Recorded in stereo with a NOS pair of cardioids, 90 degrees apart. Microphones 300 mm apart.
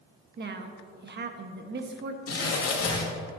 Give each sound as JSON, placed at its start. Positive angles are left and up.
{"t": 0.4, "sound": "a woman speaking", "azimuth_deg": -35, "distance_m": 1.4}
{"t": 2.3, "sound": "crumpling", "azimuth_deg": 50, "distance_m": 3.0}